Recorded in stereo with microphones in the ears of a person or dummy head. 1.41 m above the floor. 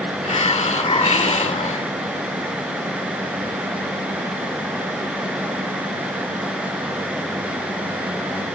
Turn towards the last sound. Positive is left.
turn(degrees=30)  # may be behind; listen again after turning